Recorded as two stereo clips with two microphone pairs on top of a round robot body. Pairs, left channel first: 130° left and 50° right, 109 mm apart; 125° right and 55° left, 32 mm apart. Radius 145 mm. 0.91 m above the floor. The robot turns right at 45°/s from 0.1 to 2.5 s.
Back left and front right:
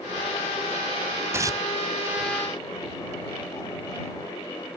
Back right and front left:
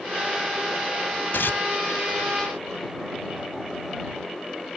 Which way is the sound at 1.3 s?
115° right.